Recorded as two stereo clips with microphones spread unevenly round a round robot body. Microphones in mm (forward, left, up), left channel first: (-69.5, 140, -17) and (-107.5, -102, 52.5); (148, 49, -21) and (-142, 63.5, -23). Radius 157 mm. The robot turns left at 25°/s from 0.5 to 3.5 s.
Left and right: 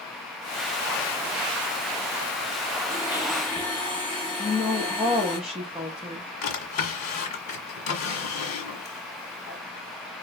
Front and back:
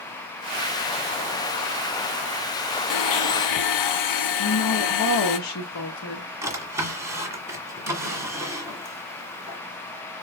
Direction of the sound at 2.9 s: 5° left.